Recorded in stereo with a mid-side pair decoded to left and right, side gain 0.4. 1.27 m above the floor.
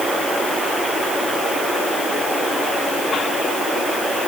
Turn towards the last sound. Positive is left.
No sound to turn to.